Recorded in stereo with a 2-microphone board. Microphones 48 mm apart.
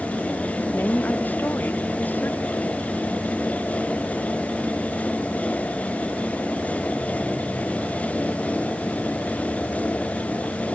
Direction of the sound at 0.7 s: 45° left (ahead or behind).